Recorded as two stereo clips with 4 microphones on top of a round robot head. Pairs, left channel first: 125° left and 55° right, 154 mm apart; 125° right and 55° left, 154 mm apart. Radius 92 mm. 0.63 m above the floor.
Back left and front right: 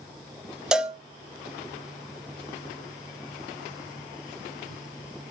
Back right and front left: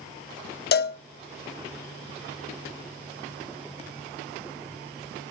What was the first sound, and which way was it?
A cowbell, 140° right.